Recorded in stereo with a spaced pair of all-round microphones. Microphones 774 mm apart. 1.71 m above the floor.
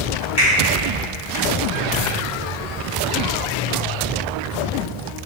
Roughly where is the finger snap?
Centre.